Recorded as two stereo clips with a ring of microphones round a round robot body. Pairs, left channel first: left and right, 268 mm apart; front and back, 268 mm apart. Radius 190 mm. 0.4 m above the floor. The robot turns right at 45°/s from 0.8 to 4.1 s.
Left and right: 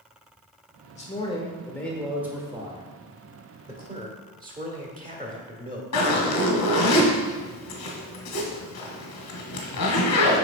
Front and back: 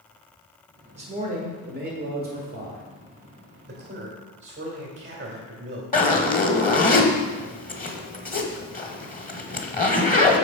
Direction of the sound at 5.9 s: 55° left.